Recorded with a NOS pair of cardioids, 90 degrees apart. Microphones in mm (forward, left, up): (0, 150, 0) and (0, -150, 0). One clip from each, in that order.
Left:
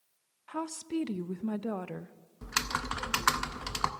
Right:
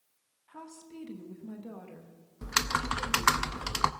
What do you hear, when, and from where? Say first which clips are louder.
0.5 s a woman speaking: left 12 dB; 60° left, 0.7 m
2.4 s typing on a keyboard: right 3 dB; 10° right, 0.6 m